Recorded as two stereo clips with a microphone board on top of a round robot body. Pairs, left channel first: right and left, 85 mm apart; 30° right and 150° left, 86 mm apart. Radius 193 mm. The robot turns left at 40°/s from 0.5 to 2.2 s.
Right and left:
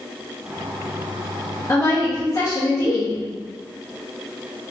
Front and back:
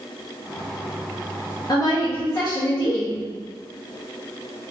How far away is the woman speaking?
About 1.5 m.